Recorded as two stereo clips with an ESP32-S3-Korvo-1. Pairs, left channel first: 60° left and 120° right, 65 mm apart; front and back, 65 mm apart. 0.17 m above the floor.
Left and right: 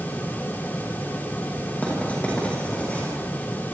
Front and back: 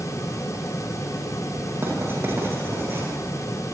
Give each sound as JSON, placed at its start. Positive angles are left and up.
{"t": 1.8, "sound": "writing", "azimuth_deg": 130, "distance_m": 10.0}